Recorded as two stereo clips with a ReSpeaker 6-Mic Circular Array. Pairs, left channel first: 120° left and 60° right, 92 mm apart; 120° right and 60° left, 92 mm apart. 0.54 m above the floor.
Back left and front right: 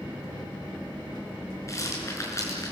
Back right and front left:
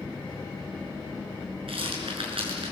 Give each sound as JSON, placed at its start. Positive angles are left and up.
{"t": 1.7, "sound": "a rattle", "azimuth_deg": 65, "distance_m": 5.5}